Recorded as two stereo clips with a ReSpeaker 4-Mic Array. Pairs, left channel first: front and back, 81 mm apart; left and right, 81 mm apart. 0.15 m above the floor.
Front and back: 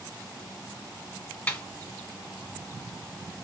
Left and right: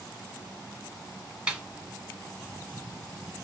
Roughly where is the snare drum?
Ahead right.